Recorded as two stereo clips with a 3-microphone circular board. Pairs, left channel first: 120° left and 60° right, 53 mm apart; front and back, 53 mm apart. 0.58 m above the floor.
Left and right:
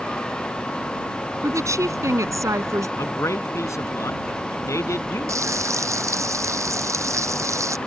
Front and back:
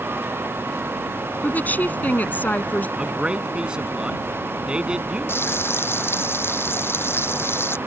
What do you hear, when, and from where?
1.4 s a woman speaking: 60° right
3.0 s a man speaking: 105° left
5.3 s frying: 45° right